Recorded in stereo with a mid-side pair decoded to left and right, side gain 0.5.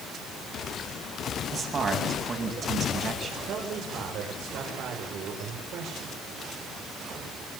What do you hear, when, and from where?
1.5 s a man speaking: 45° right, 9 m
3.5 s a man speaking: 70° right, 7 m